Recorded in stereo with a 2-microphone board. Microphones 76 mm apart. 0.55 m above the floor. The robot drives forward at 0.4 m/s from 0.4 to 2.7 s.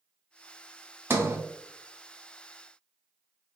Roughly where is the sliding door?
Right.